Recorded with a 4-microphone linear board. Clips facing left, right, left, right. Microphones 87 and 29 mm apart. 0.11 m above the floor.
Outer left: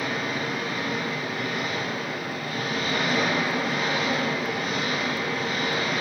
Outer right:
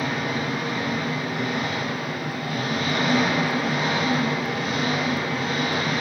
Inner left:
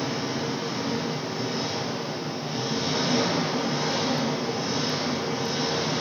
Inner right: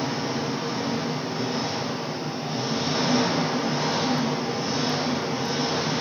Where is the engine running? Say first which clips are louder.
Outer right 2 dB, inner right 1 dB; 20° right (ahead or behind), 3.5 m.